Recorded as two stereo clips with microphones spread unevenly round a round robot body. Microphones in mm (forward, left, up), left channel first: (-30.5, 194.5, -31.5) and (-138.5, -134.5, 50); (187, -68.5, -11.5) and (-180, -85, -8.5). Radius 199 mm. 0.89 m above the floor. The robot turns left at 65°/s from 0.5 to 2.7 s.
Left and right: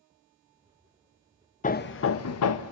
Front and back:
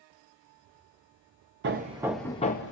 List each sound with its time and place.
1.6 s hammering: 125° left, 0.6 m; by 2.7 s 55° left, 0.6 m